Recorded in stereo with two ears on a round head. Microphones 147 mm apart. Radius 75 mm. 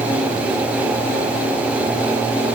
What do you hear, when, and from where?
Only background noise.